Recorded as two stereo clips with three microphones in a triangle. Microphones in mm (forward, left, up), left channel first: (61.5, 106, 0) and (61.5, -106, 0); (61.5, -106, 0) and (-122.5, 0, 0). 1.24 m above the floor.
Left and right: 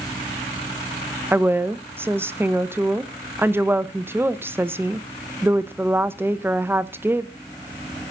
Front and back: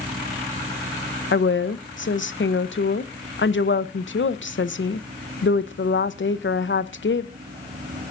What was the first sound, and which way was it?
A woman speaking, 10° right.